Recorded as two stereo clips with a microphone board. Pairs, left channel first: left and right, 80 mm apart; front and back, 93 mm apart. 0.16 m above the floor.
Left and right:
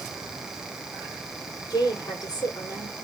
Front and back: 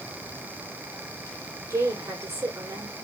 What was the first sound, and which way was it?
A woman speaking, 125° left.